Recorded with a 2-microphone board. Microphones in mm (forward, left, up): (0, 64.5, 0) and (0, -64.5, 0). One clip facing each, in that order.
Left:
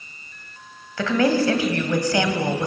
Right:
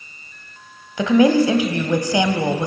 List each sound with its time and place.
1.0 s a woman speaking: 20° right (ahead or behind), 1.2 m